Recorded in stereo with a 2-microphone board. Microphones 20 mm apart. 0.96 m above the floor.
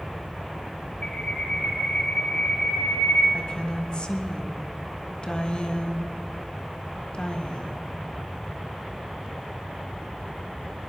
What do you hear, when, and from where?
1.0 s a bird: 65° left (ahead or behind), 2 m
3.3 s a woman speaking: 40° left (ahead or behind), 1.3 m